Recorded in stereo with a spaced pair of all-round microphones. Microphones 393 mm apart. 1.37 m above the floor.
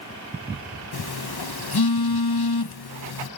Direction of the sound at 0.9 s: 70° left (ahead or behind).